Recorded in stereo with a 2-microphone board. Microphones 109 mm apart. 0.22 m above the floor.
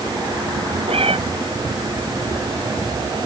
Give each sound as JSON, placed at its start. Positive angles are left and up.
{"t": 0.9, "sound": "a cat meowing", "side_deg": -60}